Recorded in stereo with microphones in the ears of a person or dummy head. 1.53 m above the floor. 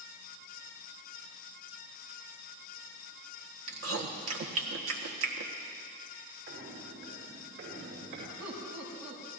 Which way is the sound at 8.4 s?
90° right.